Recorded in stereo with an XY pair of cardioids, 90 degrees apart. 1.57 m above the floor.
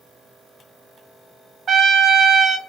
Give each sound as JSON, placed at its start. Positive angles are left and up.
{"t": 1.7, "sound": "a trumpet", "azimuth_deg": -65, "distance_m": 0.6}